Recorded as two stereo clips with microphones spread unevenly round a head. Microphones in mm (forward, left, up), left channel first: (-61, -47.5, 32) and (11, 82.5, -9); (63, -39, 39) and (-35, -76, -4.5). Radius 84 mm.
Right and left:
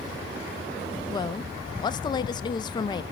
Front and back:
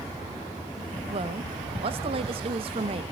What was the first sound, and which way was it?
A woman speaking, 175° left.